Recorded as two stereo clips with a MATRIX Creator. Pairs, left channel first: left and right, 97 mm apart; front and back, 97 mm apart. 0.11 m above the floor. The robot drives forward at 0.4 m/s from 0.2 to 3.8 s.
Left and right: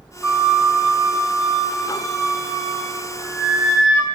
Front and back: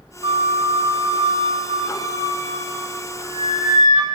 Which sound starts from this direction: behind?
A flute, at 0.2 s.